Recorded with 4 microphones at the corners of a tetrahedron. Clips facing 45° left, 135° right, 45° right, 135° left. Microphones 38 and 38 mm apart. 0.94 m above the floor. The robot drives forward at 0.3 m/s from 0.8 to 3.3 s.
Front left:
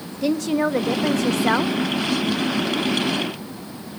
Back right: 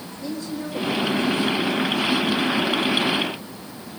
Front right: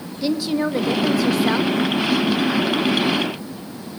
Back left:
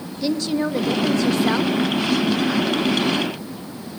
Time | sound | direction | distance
0.2 | a woman speaking | 35° left | 0.9 m